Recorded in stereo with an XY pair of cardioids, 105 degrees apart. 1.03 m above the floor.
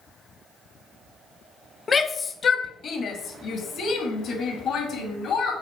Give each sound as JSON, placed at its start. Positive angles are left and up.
{"t": 1.9, "sound": "a shout", "azimuth_deg": 30, "distance_m": 0.8}